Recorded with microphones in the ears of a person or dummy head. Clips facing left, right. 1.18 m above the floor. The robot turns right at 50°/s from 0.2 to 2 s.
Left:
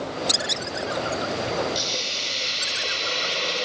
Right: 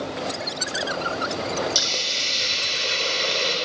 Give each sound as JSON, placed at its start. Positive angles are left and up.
{"t": 1.8, "sound": "a hiss", "side_deg": -50, "distance_m": 4.5}